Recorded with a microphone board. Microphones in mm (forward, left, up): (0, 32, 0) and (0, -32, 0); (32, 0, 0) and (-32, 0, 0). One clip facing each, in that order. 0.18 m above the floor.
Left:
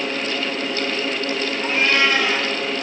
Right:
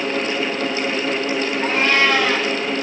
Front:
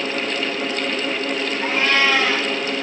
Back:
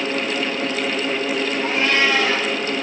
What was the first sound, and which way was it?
A cat meowing, 50° right.